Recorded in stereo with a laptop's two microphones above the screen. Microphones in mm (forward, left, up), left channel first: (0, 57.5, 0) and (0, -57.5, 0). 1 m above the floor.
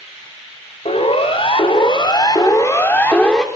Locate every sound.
0.8 s a siren: 65° left (ahead or behind), 3.5 m; by 3.5 s 5° left (ahead or behind), 2 m